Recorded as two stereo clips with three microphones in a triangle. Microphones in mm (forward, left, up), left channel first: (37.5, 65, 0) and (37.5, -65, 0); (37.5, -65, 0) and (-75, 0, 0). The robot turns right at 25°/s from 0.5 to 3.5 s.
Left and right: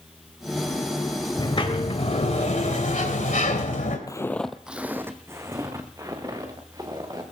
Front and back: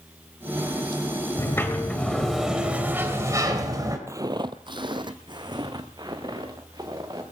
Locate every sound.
1.4 s a sliding door: 35° left, 2 m; by 4.0 s 90° left, 2 m
4.1 s footsteps: 110° left, 0.7 m; by 7.2 s 150° right, 4 m